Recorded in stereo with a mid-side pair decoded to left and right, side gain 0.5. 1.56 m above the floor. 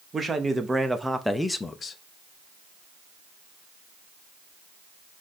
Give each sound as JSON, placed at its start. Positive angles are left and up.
{"t": 0.1, "sound": "a man speaking", "azimuth_deg": -30, "distance_m": 1.0}